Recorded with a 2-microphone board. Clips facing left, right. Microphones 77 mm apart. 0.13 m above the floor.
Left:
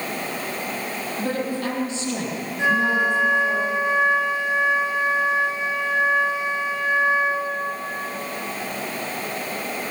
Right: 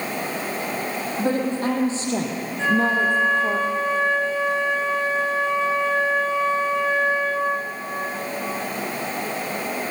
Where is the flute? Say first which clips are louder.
Even; 15° left (ahead or behind), 2.5 m.